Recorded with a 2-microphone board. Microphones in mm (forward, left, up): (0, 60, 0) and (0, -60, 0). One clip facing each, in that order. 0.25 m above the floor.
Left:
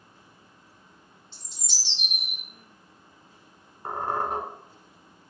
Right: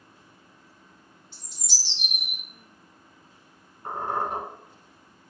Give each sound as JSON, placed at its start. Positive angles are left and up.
{"t": 1.3, "sound": "a bird", "side_deg": -10, "distance_m": 1.9}
{"t": 3.9, "sound": "a squeak", "side_deg": 40, "distance_m": 1.1}